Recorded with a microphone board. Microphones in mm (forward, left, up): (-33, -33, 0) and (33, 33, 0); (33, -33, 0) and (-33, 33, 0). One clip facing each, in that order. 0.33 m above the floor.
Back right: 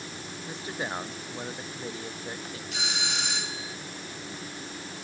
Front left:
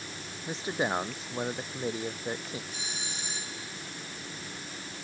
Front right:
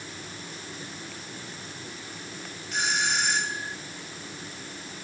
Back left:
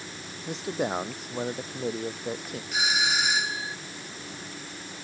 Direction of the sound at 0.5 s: 115° left.